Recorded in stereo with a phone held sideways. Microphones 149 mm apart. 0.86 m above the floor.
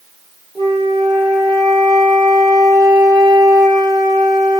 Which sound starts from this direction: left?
A flute, at 0.6 s.